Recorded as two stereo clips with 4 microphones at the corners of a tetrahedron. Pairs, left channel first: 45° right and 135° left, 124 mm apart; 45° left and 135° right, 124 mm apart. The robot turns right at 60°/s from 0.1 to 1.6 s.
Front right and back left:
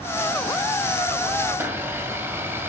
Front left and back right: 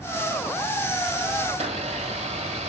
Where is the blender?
160° right, 1.5 m; by 2.7 s 155° right, 1.5 m.